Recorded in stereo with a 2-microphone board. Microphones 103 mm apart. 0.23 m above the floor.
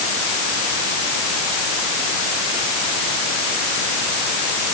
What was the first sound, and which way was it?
Only background noise.